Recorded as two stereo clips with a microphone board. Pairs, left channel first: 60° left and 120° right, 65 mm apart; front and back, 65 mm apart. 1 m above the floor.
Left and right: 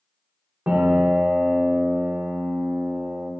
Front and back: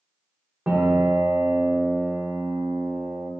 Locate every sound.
0.7 s a piano: 140° right, 0.6 m